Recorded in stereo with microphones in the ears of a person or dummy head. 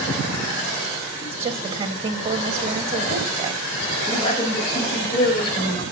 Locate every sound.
1.2 s a woman speaking: 30° right (ahead or behind), 1.5 m
4.1 s a man speaking: 30° left (ahead or behind), 5 m